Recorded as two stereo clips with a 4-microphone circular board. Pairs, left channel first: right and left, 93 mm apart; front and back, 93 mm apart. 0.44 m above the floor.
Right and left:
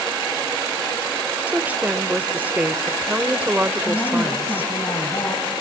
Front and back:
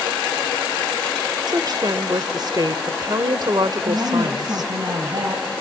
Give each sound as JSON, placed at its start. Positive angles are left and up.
{"t": 1.5, "sound": "a woman speaking", "azimuth_deg": 160, "distance_m": 1.2}
{"t": 3.9, "sound": "a woman speaking", "azimuth_deg": -140, "distance_m": 3.5}